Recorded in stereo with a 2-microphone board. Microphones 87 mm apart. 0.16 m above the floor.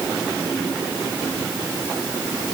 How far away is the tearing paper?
No tearing paper in this recording.